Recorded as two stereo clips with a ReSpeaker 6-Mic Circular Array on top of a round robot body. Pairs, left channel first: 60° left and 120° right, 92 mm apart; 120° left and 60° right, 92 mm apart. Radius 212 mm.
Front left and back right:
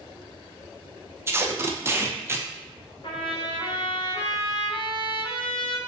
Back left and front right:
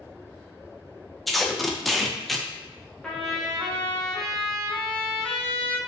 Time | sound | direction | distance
1.3 | tape being pulled | 150° right | 0.6 m
3.0 | a trumpet | 35° left | 0.8 m